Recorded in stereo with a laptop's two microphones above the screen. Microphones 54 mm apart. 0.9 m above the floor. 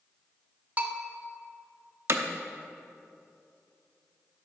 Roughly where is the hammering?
Right.